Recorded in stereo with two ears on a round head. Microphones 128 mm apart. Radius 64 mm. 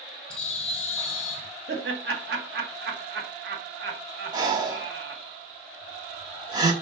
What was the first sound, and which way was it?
A bird, 45° left (ahead or behind).